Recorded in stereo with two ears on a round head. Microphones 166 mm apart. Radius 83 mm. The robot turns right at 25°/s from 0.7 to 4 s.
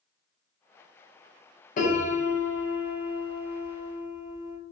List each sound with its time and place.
1.8 s a piano: 65° left, 0.6 m; by 4.6 s 120° left, 0.6 m